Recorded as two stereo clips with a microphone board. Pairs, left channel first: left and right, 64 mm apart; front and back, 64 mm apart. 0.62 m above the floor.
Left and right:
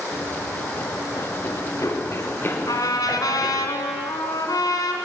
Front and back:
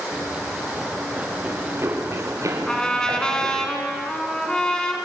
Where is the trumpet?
80° left, 2.5 m.